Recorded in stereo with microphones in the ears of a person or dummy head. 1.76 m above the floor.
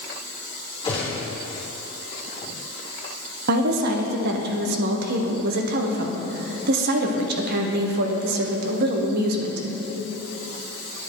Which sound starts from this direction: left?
A gunshot, at 0.8 s.